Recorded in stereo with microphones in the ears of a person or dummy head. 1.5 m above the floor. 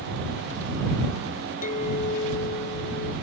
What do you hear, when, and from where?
1.6 s a clink: 45° left (ahead or behind)